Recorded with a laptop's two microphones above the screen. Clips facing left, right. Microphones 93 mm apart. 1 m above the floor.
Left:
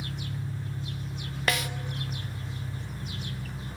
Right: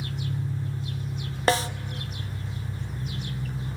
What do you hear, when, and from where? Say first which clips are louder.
0.0 s an engine running: right 4 dB; 25° right (ahead or behind), 3 m
1.5 s a snare drum: right 7 dB; 30° right (ahead or behind), 0.7 m